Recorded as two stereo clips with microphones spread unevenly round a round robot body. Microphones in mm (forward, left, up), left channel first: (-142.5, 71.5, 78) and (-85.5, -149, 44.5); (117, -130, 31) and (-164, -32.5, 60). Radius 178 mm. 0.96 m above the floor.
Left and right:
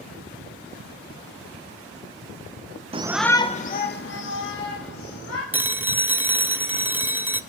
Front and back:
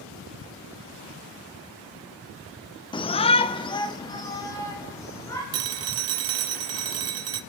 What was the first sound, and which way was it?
A shout, 70° right.